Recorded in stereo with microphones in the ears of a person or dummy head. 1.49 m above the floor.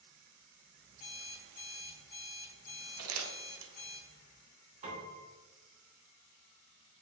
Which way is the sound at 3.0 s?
75° right (ahead or behind).